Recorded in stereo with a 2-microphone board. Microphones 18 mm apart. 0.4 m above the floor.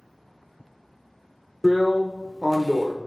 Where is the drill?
10° left (ahead or behind), 0.6 m.